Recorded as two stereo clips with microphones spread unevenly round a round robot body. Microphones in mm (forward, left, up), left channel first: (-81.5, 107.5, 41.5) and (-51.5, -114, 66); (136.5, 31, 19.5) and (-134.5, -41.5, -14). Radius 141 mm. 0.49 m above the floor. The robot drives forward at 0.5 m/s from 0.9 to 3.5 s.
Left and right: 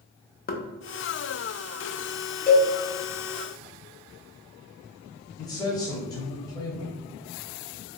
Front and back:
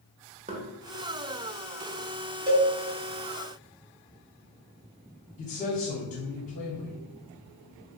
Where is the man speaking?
60° left, 0.8 m.